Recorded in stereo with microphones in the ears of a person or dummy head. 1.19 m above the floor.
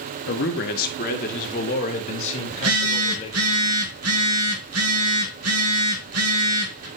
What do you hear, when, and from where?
0.3 s a man speaking: 55° left (ahead or behind), 1.1 m; by 3.5 s 35° left (ahead or behind), 3.5 m
2.5 s a phone buzzing: 70° right (ahead or behind), 1.8 m